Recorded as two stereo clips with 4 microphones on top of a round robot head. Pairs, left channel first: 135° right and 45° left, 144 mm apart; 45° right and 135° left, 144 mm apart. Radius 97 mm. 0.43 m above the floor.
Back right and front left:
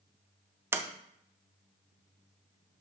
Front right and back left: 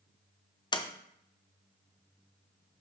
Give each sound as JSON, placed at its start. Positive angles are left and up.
{"t": 0.7, "sound": "a sliding door", "azimuth_deg": -15, "distance_m": 1.0}